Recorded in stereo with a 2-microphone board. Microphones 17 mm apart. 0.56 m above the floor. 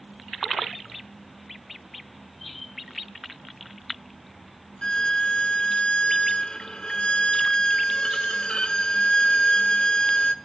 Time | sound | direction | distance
4.8 | a violin | 70° left (ahead or behind) | 0.7 m